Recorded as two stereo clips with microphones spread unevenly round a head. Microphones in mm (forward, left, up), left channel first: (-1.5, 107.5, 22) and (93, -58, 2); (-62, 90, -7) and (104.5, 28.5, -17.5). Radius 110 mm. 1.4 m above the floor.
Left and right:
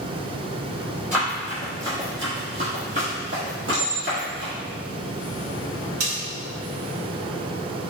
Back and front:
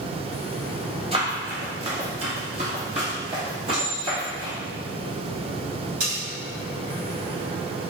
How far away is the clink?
About 1.7 m.